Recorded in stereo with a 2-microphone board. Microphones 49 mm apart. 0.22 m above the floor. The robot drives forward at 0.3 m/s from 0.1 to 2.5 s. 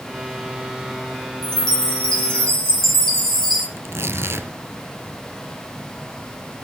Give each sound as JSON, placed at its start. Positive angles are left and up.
{"t": 1.4, "sound": "a chime", "side_deg": 10, "distance_m": 3.5}
{"t": 3.8, "sound": "tearing paper", "side_deg": -60, "distance_m": 2.0}